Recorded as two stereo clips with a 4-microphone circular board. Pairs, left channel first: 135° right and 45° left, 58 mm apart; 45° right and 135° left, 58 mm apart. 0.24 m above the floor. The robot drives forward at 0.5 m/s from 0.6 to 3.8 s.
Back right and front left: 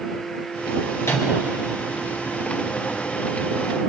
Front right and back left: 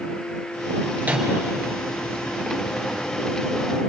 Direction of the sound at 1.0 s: 165° right.